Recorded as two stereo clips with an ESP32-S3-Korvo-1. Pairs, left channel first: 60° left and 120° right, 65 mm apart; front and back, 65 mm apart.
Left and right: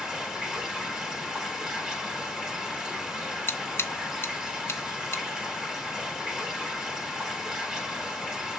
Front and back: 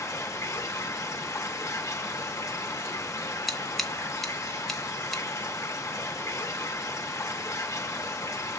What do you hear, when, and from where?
0.0 s running water: 40° right, 1.4 m
3.5 s scissors: 85° left, 1.2 m